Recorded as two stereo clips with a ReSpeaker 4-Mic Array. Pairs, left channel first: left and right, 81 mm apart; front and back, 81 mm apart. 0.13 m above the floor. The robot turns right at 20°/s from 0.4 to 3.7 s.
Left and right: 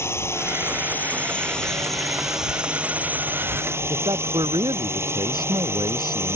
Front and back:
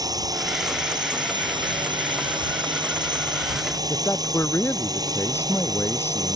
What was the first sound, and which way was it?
A drone, 145° left.